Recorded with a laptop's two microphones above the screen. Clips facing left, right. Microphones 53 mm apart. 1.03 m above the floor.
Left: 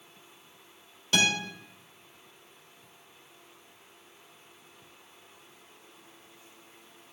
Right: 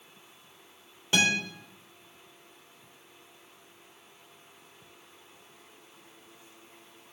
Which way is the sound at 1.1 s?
20° right (ahead or behind).